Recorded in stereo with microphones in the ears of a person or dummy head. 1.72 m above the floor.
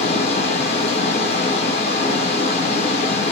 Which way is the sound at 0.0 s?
45° left (ahead or behind).